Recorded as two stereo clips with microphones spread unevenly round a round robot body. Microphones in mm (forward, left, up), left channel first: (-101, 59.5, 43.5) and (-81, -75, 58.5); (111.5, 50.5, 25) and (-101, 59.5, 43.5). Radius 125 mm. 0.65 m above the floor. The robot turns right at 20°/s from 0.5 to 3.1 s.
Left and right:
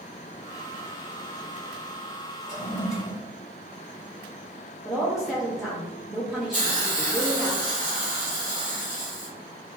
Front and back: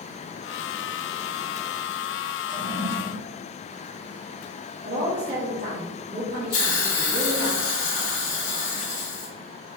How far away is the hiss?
About 1.0 m.